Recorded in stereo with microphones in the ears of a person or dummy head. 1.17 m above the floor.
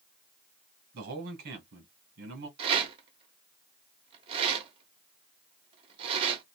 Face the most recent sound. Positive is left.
turn(degrees=-30)  # may be behind; listen again after turning